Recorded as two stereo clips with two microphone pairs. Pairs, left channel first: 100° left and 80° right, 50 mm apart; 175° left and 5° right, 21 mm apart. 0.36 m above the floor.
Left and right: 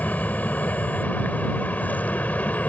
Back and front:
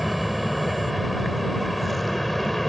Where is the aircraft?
80° left; by 2.7 s 95° left.